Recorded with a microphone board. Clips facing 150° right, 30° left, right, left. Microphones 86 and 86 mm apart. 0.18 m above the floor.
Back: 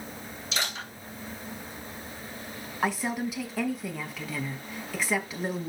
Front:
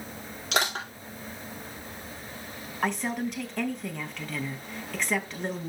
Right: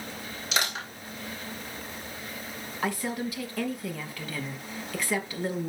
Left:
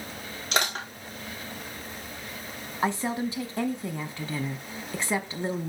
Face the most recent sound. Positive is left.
turn(degrees=130)